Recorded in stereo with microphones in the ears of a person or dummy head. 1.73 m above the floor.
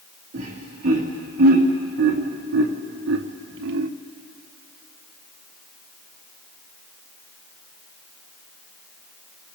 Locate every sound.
0.3 s laughter: 40° right (ahead or behind), 4 m; by 3.9 s 70° right (ahead or behind), 1.0 m